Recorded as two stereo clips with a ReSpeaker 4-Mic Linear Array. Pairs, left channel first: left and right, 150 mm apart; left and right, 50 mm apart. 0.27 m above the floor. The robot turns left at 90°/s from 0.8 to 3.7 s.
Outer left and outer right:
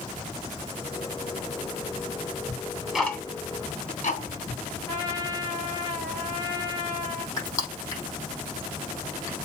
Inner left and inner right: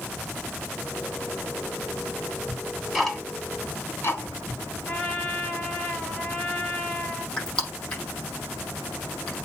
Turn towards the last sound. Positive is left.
turn(degrees=20)  # may be behind; listen again after turning